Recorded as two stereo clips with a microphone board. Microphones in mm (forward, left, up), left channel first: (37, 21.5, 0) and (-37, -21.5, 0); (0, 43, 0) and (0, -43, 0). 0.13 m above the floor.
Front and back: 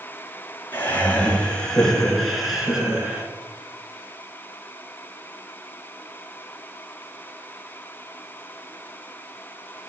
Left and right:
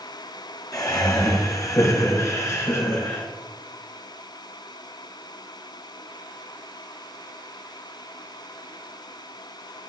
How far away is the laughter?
About 2 m.